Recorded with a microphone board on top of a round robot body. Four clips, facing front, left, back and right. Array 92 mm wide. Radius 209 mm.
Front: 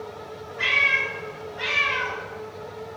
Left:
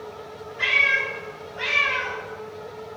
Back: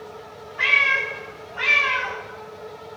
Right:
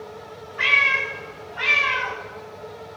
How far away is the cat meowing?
About 3.5 m.